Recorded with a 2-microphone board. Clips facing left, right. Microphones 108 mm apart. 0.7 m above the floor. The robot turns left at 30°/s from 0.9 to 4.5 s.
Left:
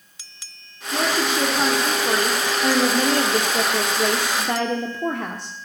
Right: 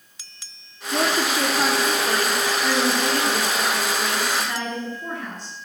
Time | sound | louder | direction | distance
0.9 | a woman speaking | even | 165° right | 1.6 m